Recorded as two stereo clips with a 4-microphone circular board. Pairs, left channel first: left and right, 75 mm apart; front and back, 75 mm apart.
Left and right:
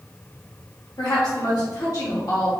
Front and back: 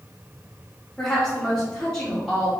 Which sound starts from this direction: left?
A woman speaking, at 1.0 s.